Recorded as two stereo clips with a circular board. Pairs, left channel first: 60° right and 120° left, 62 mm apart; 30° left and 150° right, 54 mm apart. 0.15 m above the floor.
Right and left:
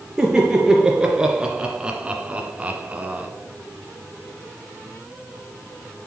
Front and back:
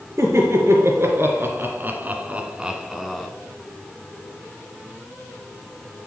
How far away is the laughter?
About 3 m.